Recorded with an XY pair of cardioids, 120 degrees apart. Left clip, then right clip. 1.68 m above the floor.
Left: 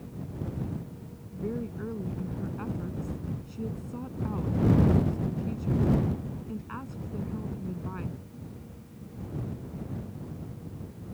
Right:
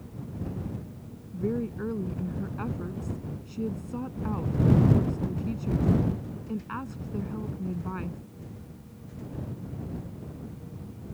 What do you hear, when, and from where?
1.3 s a woman speaking: 25° right